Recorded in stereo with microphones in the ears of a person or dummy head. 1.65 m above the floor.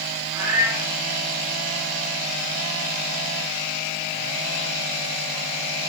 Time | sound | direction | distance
0.3 | a cat meowing | 5° right (ahead or behind) | 4 m